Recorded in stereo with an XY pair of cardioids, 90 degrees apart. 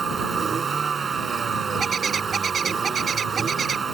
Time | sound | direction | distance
0.0 | a vehicle | 40° right | ?
1.8 | a bird | 40° right | ?